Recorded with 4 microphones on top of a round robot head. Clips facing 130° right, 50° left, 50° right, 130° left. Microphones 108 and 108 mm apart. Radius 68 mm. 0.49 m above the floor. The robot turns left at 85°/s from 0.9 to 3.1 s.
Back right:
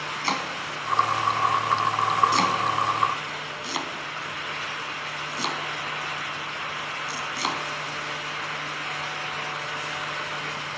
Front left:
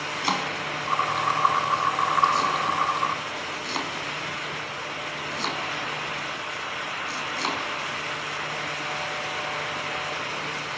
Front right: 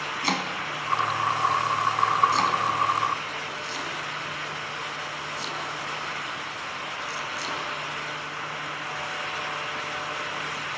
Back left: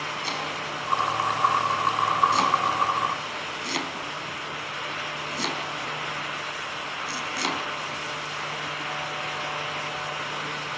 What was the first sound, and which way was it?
Chopping, 20° right.